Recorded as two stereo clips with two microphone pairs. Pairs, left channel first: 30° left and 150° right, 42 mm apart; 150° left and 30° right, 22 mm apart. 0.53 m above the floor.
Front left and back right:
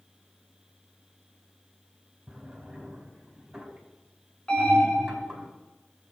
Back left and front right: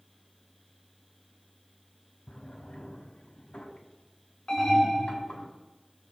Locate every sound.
2.3 s a drawer: 140° left, 2 m
4.5 s an alarm: 105° left, 4.5 m